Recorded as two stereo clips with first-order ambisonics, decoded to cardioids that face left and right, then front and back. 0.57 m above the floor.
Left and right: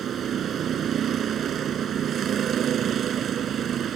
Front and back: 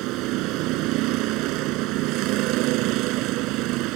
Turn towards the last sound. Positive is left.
turn(degrees=-150)